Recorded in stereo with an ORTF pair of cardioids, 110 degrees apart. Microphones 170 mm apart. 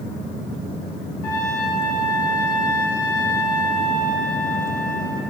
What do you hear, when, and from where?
1.2 s a trumpet: 60° left, 2.0 m